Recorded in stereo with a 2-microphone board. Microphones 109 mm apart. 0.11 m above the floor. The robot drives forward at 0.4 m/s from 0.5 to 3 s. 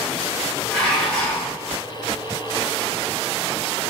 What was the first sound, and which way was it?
Dishes clattering, 5° left (ahead or behind).